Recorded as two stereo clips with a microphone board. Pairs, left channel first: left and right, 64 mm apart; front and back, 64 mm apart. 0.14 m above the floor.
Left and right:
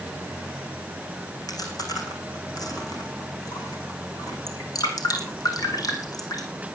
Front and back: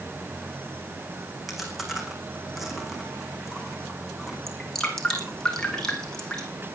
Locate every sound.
1.5 s chewing: 90° left, 4 m
4.5 s dripping: 80° left, 4 m